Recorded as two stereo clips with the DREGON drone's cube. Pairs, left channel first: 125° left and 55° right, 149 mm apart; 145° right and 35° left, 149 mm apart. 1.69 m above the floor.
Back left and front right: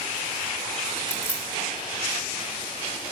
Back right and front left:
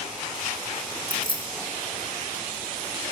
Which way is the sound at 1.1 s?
165° right.